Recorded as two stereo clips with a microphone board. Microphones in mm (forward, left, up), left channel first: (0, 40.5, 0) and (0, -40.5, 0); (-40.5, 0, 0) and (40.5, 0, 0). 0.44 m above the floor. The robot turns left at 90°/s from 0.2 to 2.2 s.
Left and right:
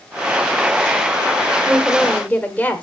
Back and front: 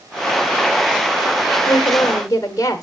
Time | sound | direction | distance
1.7 | a woman speaking | 155° right | 1.3 m